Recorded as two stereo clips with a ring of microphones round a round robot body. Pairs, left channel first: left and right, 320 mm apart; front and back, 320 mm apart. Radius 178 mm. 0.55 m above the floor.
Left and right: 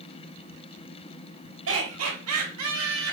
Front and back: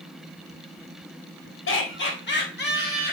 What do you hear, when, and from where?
1.7 s laughter: 50° right, 3 m; by 3.1 s 60° right, 3.5 m